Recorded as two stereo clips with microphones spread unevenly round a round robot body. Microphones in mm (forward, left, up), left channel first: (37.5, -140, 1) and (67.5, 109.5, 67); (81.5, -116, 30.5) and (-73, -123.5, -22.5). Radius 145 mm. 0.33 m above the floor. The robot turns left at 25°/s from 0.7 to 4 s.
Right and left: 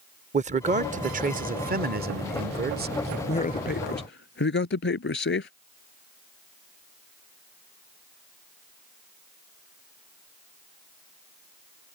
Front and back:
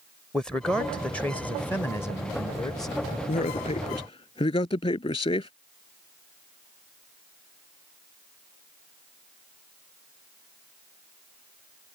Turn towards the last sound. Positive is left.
turn(degrees=-50)